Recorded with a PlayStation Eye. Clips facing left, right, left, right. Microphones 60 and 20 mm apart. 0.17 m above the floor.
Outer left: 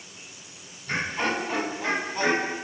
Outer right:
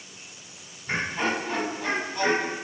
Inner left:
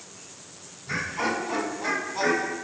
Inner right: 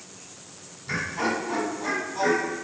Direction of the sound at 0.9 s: 25° right (ahead or behind).